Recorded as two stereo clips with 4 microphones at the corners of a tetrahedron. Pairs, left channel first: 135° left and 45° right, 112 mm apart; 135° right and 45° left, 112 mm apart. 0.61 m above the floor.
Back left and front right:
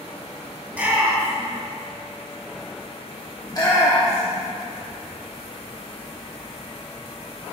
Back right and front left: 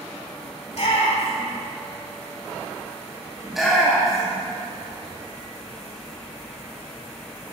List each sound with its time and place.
0.7 s a shout: 120° right, 2.5 m
3.4 s a shout: 130° left, 1.1 m